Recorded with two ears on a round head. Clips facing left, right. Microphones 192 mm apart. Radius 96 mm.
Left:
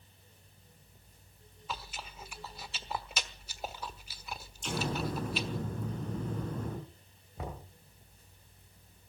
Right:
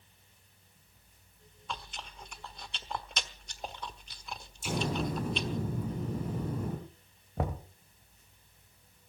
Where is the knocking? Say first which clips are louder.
Right 7 dB; 50° right (ahead or behind), 2 m.